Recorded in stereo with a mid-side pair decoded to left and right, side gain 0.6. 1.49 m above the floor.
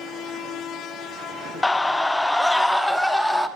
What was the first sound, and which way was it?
A scream, 15° left.